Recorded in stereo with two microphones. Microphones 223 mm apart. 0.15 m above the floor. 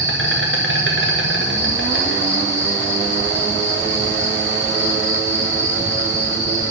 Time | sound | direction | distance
0.0 | an insect | 65° right (ahead or behind) | 3.5 m